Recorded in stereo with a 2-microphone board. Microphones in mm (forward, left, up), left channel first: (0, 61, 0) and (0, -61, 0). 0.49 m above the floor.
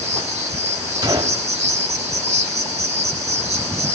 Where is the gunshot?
35° right (ahead or behind), 2.0 m.